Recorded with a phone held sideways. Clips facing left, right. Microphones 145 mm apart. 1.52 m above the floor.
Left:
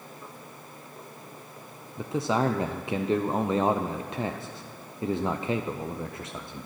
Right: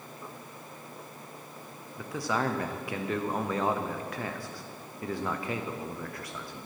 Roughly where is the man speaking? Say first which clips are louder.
Left 5 dB; left.